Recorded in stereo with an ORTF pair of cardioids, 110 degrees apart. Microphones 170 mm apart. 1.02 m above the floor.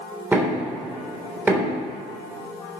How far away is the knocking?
About 3 m.